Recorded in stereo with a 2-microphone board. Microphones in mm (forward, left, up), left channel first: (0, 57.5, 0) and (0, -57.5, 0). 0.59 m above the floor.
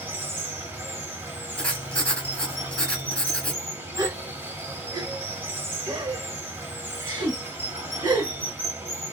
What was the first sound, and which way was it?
Running water, 20° right (ahead or behind).